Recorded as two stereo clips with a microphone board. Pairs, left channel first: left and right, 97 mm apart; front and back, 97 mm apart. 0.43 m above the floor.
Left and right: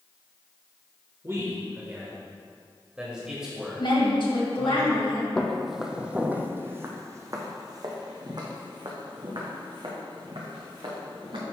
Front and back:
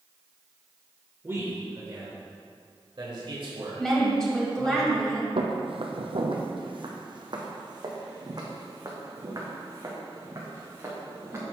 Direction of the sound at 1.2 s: 130° right.